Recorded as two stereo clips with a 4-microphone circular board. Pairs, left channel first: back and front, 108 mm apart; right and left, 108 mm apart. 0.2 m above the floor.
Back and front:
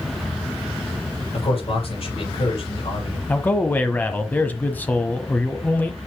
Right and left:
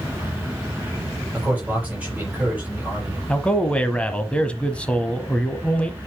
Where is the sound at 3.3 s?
145° right, 1.1 m.